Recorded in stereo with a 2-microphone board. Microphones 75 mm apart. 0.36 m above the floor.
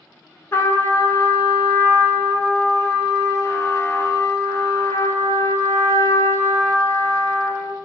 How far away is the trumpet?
About 0.6 m.